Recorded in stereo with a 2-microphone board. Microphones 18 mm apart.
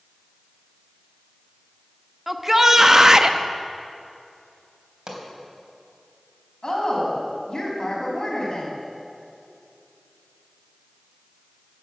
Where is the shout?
10° right (ahead or behind), 0.9 m; by 3.4 s 35° right (ahead or behind), 0.7 m.